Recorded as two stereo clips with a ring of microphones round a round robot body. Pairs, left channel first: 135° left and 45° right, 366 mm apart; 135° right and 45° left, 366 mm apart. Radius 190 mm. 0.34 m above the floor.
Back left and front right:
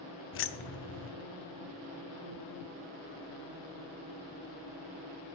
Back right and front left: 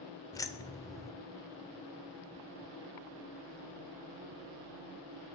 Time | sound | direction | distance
0.3 | keys jangling | 150° left | 0.6 m